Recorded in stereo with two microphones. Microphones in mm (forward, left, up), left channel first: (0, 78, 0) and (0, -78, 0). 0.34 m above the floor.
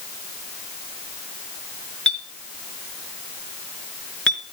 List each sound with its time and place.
2.1 s a clink: 5° left (ahead or behind), 4 m